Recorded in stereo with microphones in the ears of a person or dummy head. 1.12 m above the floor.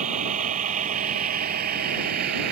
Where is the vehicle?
45° right (ahead or behind); by 2.5 s 55° right (ahead or behind).